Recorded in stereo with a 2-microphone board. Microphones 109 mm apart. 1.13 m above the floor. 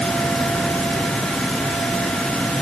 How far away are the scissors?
I don't hear scissors.